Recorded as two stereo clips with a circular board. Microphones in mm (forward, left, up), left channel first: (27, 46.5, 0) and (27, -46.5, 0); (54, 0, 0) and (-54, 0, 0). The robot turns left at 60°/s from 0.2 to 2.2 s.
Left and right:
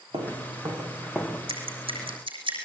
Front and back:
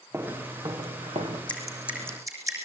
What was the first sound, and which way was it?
Footsteps, 115° right.